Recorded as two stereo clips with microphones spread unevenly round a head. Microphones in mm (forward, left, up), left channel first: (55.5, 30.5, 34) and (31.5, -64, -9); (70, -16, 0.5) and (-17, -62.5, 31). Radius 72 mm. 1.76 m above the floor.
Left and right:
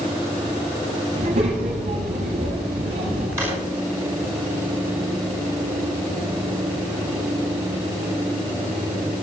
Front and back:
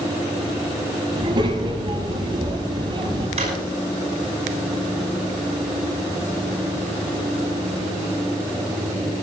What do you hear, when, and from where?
1.1 s a child speaking: 110° right, 7.5 m
3.4 s a drawer: 175° left, 5.5 m